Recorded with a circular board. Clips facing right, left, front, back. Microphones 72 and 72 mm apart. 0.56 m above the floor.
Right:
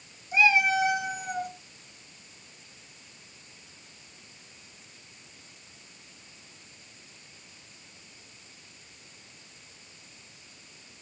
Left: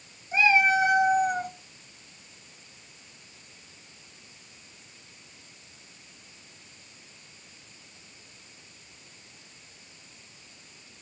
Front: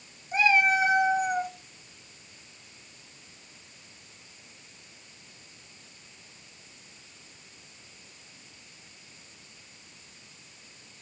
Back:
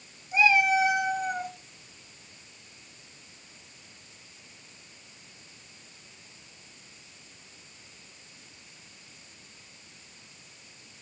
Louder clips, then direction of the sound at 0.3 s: Left 1 dB, back 1 dB; 35° left.